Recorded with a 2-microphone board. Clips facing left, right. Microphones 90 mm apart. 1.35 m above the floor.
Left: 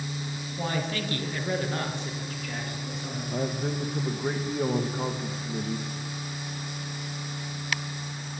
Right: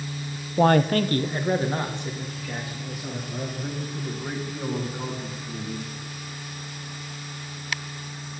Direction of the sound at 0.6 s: 65° right (ahead or behind).